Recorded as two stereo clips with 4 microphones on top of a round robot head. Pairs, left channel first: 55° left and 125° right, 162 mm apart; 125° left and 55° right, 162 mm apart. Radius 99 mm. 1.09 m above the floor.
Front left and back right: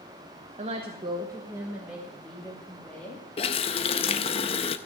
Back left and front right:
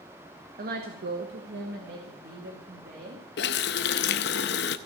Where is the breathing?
I don't hear breathing.